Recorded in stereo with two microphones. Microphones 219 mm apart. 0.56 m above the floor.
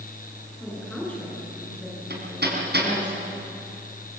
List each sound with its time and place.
0.6 s a woman speaking: 5° left (ahead or behind), 8.5 m
2.1 s hammering: 55° right (ahead or behind), 4.5 m